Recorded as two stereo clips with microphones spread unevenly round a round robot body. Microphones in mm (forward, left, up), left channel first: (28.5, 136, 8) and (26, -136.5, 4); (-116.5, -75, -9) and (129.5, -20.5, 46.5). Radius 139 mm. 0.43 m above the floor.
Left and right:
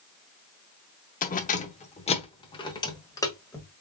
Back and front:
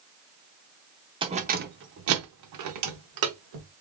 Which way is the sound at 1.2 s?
90° left.